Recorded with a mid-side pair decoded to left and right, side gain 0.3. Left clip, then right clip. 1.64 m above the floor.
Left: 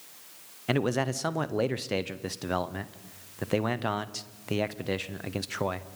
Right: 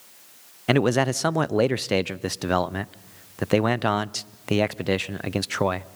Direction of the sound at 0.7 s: 70° right.